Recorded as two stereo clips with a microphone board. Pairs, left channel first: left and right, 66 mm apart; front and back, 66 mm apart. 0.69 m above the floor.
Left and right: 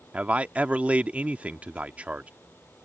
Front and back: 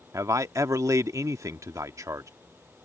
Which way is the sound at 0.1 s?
155° right.